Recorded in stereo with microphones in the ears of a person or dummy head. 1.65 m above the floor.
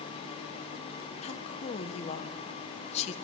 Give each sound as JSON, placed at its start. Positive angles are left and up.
{"t": 1.2, "sound": "a woman speaking", "side_deg": 35, "distance_m": 1.5}